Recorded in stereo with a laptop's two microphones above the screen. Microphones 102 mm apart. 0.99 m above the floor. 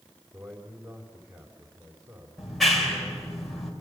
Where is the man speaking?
30° right (ahead or behind), 4 m.